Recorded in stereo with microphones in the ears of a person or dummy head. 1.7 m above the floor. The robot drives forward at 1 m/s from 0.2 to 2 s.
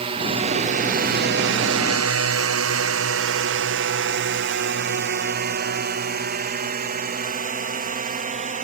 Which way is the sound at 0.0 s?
35° right (ahead or behind).